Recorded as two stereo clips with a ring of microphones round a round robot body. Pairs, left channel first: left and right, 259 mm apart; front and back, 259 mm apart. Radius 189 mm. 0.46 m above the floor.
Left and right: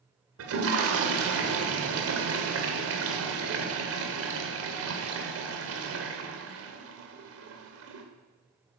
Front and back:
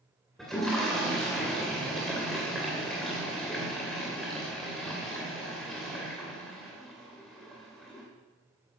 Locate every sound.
0.4 s a toilet flushing: 90° right, 2.5 m